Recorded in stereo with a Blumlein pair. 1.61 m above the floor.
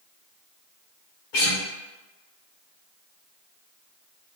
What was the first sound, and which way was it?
A guitar, 50° left.